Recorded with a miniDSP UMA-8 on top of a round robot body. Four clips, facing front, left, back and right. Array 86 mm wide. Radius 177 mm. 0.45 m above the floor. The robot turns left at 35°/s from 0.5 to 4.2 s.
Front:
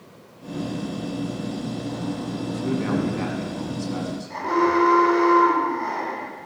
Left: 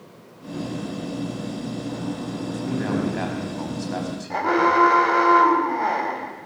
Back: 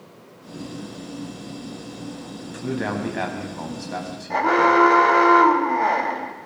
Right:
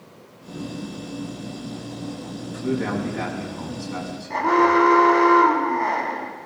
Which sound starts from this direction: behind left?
An alarm, at 4.3 s.